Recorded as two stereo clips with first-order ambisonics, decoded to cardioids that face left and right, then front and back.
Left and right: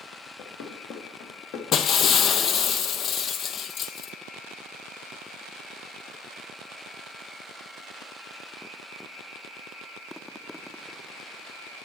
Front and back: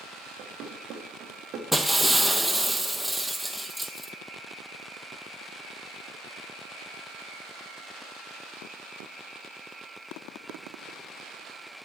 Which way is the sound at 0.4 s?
130° left.